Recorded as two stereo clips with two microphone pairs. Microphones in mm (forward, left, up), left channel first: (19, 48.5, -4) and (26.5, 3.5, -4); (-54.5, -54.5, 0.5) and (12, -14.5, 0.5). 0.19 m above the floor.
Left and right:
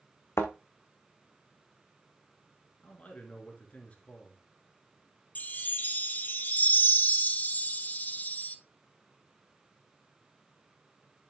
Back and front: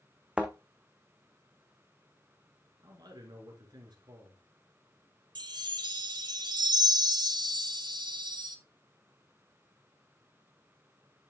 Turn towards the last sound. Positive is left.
turn(degrees=50)